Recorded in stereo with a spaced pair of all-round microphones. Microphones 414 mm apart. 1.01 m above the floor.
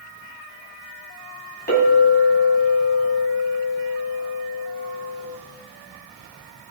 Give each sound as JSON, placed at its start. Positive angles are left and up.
{"t": 1.7, "sound": "a clink", "side_deg": 25, "distance_m": 5.5}